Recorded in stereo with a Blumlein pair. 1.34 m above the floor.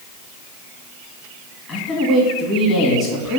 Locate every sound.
1.7 s a man speaking: 15° left, 2.5 m